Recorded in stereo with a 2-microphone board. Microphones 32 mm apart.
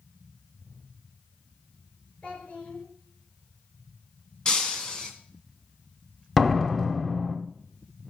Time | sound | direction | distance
2.2 | a child speaking | 35° left (ahead or behind) | 5.5 m
4.5 | breaking glass | 25° left (ahead or behind) | 2.0 m
6.4 | a door slam | 5° left (ahead or behind) | 1.2 m